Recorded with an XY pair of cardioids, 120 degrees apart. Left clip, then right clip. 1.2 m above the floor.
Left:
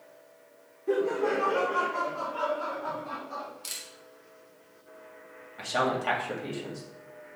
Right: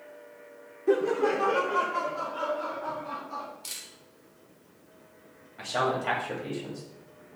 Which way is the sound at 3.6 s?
20° left.